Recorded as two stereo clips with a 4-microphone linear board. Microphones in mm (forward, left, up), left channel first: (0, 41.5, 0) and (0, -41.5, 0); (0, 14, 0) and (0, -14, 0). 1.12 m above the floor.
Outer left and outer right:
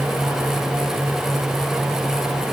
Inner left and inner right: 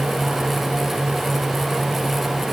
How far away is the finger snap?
I don't hear a finger snap.